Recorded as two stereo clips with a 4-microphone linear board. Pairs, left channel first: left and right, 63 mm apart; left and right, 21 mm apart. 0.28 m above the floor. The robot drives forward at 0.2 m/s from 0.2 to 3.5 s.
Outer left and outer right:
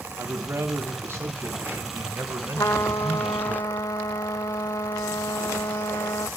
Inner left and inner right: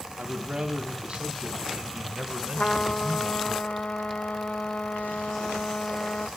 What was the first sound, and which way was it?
A man speaking, 45° right (ahead or behind).